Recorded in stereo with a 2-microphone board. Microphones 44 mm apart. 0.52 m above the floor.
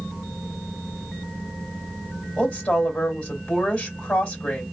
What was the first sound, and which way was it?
A woman speaking, 25° left (ahead or behind).